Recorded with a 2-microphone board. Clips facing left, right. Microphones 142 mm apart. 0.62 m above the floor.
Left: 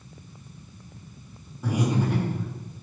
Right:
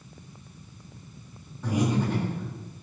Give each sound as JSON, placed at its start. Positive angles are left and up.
{"t": 1.6, "sound": "breathing", "side_deg": 10, "distance_m": 1.1}